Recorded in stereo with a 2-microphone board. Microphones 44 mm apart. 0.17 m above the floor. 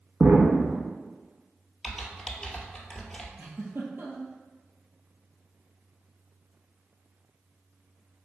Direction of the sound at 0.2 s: 40° right (ahead or behind).